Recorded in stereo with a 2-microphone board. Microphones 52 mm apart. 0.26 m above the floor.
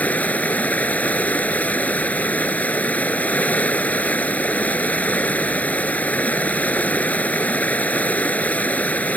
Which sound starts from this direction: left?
Running water, at 0.0 s.